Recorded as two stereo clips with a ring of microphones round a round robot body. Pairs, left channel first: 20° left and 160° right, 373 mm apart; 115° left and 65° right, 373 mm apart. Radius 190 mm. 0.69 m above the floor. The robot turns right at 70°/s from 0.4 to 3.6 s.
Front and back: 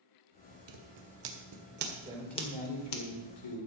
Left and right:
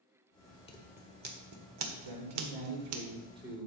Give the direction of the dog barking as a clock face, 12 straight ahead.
I don't hear a dog barking.